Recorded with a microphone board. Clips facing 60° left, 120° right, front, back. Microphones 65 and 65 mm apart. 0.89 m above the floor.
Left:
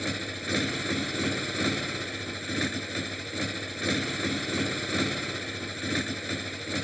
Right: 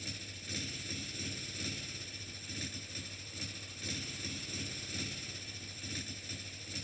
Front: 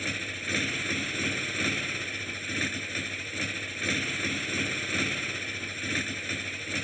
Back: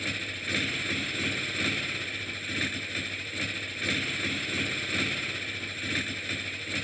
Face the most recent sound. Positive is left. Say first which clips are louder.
# left 15 dB, front 1 dB
turn(degrees=85)